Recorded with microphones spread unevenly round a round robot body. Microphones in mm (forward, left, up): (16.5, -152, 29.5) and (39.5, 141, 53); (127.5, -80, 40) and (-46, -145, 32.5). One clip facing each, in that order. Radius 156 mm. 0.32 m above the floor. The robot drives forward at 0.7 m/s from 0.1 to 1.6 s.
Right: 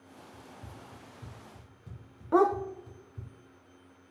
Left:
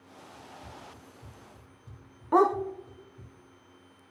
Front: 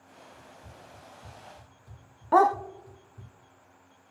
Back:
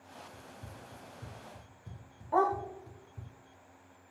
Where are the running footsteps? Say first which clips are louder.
Left 1 dB, back 1 dB; 165° right, 3.5 m; by 3.3 s 105° right, 2.5 m.